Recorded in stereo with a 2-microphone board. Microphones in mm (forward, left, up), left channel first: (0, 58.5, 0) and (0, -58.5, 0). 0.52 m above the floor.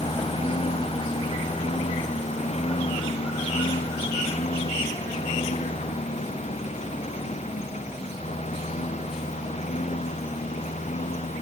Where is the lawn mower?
60° left (ahead or behind); by 11.4 s 85° left.